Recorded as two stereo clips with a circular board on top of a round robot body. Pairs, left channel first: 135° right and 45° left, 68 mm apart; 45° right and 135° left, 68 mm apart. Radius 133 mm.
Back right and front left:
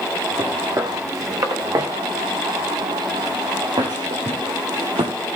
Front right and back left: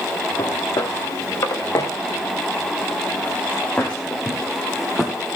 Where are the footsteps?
5° right, 4.5 m; by 5.1 s 50° left, 3.5 m.